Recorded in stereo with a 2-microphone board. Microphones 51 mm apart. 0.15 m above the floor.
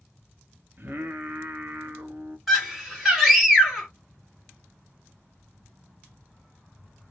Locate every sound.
0.8 s singing: 45° right (ahead or behind), 0.6 m
2.5 s a scream: 5° right (ahead or behind), 1.2 m